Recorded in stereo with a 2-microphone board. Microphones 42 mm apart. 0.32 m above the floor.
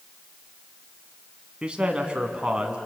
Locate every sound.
1.6 s a man speaking: 25° right (ahead or behind), 2.5 m